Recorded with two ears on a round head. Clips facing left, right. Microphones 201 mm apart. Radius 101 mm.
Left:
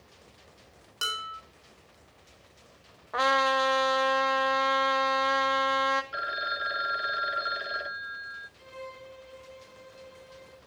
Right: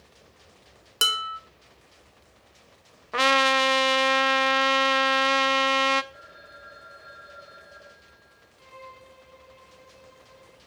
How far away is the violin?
About 1.6 m.